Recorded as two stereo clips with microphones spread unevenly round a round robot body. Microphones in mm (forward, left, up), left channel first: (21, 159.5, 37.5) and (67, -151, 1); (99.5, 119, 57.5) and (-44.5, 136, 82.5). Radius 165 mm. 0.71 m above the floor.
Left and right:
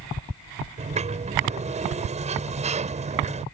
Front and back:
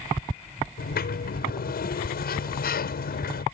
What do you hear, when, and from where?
0.8 s a sliding door: 10° right